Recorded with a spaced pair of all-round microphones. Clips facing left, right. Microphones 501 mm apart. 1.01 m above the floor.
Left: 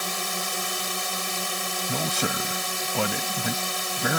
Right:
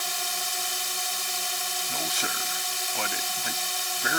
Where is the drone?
75° left (ahead or behind).